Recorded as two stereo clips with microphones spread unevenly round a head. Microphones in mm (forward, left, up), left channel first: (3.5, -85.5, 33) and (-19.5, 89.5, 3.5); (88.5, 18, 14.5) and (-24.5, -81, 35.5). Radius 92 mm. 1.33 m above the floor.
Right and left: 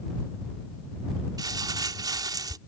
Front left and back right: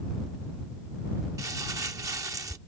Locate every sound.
1.4 s crumpling: 170° left